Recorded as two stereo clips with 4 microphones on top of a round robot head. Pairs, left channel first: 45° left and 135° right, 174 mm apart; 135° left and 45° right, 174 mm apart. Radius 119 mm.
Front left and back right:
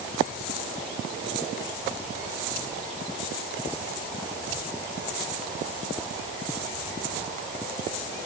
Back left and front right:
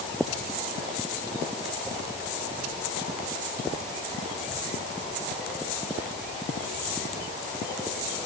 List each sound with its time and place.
Only background noise.